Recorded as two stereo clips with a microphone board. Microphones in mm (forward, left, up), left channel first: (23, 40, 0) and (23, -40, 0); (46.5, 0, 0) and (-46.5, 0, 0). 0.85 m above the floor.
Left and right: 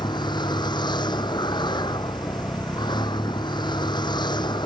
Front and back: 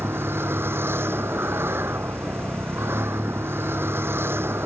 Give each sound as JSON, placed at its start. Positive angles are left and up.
{"t": 0.0, "sound": "a vehicle", "azimuth_deg": 115}